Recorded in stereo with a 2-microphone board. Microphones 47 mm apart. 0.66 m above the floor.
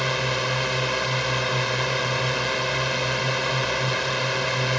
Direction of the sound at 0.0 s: Centre (ahead or behind).